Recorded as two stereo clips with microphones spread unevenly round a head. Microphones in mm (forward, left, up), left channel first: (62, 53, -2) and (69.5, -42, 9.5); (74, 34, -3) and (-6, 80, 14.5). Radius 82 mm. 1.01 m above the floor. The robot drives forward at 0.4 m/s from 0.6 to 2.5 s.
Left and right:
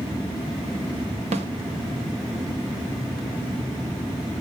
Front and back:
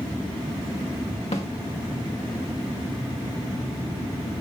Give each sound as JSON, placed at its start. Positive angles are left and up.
{"t": 1.3, "sound": "a snare drum", "azimuth_deg": -85, "distance_m": 1.1}